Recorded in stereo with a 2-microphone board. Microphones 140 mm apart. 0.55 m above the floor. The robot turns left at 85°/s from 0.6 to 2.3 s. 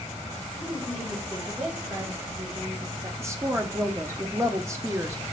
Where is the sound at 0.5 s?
40° left, 1.8 m; by 3.1 s 105° right, 1.8 m.